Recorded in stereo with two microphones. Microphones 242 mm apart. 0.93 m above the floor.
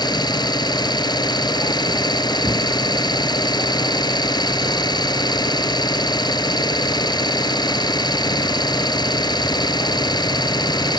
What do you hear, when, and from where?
0.0 s an engine running: 15° left (ahead or behind)